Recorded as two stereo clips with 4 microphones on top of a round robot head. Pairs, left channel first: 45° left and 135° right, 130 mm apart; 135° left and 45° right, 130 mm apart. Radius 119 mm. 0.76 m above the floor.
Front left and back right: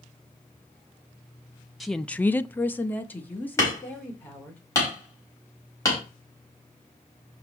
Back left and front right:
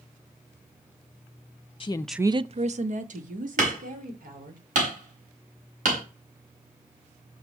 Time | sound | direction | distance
1.8 | a woman speaking | 135° left | 0.6 m
3.6 | hammering | 25° right | 4 m